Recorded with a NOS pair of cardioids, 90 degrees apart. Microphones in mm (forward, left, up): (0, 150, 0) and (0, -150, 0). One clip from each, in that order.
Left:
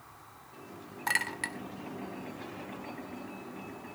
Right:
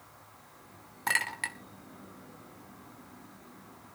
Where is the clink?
5° right, 2 m.